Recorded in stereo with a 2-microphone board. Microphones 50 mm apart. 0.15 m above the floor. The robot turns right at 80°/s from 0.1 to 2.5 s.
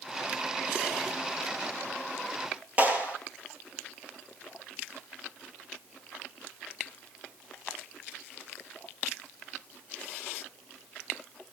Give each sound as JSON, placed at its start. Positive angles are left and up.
{"t": 2.8, "sound": "a clap", "side_deg": -30, "distance_m": 3.5}